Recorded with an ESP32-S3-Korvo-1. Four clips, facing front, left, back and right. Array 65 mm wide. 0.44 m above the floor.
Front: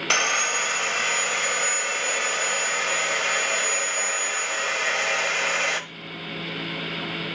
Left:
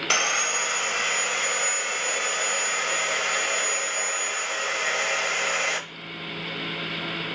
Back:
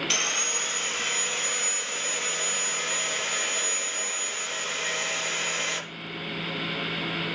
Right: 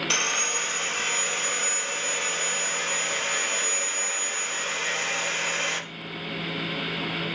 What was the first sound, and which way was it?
Sawing, 30° left.